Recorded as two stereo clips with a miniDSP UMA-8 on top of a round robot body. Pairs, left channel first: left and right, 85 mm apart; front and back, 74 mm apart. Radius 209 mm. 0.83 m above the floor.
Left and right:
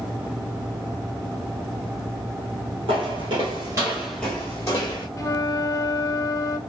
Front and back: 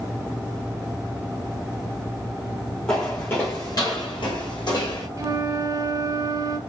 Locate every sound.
2.9 s footsteps: 75° right, 1.1 m; by 5.1 s 45° left, 1.2 m
5.2 s a flute: 140° left, 1.2 m